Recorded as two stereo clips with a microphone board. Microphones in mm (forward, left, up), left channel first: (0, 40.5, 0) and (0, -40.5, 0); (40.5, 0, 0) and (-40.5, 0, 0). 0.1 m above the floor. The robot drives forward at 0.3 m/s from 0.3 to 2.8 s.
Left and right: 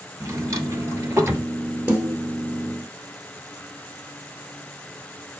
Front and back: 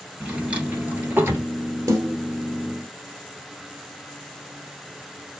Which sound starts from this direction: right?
A drawer, at 0.2 s.